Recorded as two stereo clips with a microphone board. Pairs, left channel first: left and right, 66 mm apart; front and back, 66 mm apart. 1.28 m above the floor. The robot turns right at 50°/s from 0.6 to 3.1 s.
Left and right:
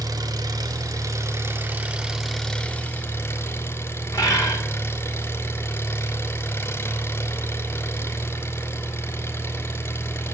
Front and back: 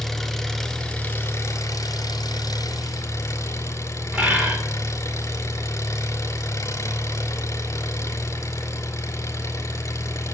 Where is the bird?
110° left, 4 m.